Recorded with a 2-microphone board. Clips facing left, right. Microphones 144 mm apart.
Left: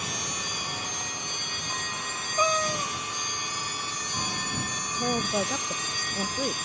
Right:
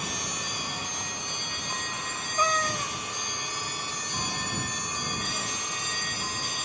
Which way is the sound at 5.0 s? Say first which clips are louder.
Left 12 dB; 65° left (ahead or behind).